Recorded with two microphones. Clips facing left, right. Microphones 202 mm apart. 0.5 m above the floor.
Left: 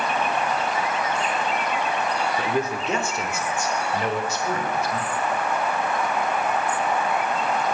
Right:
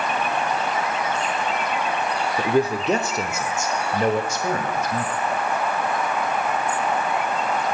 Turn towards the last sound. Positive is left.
turn(degrees=-50)  # may be behind; listen again after turning